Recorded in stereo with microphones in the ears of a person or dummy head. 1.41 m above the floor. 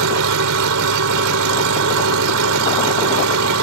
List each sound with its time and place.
0.0 s an engine running: 75° right (ahead or behind)